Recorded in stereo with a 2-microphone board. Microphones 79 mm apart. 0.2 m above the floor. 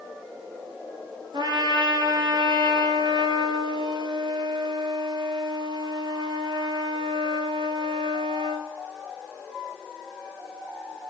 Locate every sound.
1.3 s a trumpet: 75° right (ahead or behind), 0.8 m